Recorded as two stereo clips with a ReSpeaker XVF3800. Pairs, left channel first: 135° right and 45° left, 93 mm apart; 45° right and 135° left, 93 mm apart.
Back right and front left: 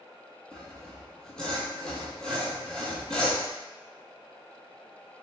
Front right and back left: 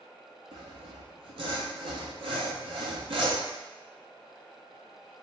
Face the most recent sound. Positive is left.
turn(degrees=145)